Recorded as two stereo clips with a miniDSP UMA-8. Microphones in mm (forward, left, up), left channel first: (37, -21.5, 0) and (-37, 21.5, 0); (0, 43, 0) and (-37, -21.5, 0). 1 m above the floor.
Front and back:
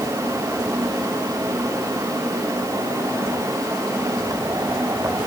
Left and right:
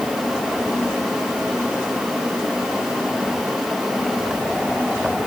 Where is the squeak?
I don't hear a squeak.